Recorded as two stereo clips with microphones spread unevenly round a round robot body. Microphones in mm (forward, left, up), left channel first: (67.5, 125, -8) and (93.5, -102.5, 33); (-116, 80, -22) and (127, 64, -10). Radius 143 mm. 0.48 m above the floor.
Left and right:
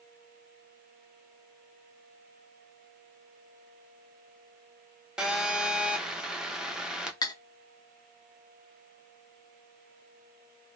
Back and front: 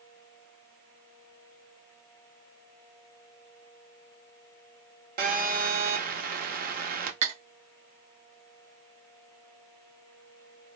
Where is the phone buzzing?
20° left, 0.6 m.